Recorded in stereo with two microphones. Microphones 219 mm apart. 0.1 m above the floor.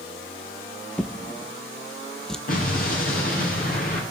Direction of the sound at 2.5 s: 40° left (ahead or behind).